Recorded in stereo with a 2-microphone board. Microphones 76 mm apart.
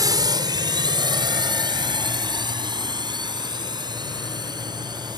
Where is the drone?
55° right (ahead or behind); by 5.2 s 70° right (ahead or behind).